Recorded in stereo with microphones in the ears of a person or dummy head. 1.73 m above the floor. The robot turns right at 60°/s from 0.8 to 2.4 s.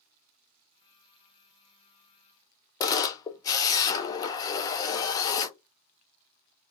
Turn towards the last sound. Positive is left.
turn(degrees=30)  # may be behind; listen again after turning